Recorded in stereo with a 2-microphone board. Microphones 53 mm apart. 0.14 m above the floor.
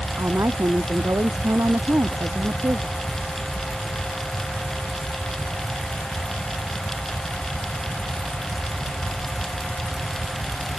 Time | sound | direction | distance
0.2 | a woman speaking | 75° right (ahead or behind) | ?